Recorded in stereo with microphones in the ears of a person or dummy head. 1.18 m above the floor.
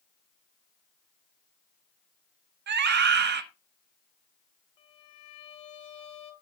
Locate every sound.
2.7 s a scream: 60° right (ahead or behind), 1.2 m
4.8 s a violin: 35° left (ahead or behind), 0.9 m